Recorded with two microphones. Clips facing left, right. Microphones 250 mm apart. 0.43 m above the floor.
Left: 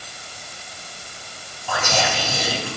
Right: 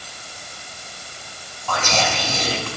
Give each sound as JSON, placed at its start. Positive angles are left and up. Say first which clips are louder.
{"t": 1.7, "sound": "whispering", "louder": "even", "side_deg": 10, "distance_m": 1.3}